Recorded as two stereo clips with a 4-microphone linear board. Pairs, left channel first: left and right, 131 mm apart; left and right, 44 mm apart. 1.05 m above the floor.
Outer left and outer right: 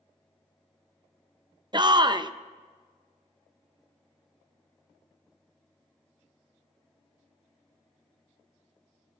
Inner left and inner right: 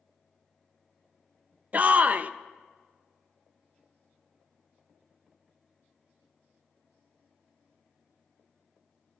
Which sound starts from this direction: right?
A shout, at 1.7 s.